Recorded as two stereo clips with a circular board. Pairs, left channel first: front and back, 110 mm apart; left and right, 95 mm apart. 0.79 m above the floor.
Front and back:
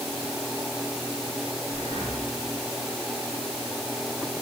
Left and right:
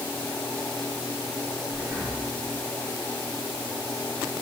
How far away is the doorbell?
I don't hear a doorbell.